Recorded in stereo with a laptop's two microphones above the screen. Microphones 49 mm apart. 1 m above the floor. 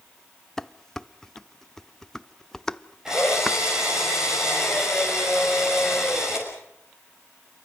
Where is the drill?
10° right (ahead or behind), 6 m.